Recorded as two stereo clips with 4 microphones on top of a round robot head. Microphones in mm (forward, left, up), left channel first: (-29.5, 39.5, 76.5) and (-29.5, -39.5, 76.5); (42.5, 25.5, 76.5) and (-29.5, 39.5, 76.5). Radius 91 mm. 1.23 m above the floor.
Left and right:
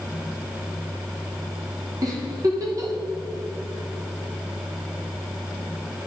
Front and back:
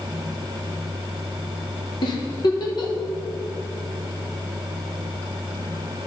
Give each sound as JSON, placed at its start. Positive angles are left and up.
{"t": 2.0, "sound": "a giggle", "azimuth_deg": -40, "distance_m": 1.0}